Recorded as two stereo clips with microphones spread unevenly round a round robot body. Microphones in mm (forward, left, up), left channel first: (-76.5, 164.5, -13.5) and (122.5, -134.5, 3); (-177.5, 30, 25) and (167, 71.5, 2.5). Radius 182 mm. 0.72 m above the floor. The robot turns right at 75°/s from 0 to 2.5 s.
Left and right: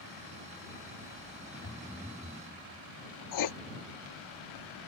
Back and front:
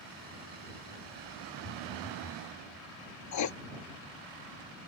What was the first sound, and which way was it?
A phone buzzing, 175° right.